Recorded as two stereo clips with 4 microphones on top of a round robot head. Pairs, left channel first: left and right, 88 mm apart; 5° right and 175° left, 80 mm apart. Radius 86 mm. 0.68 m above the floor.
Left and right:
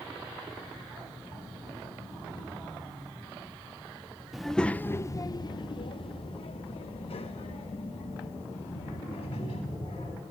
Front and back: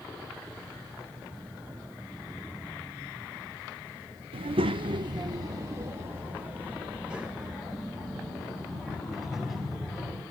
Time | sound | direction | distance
4.3 | a child speaking | 175° right | 0.7 m